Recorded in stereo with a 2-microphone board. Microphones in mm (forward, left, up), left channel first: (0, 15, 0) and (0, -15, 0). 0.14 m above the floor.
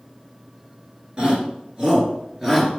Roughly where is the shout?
Right.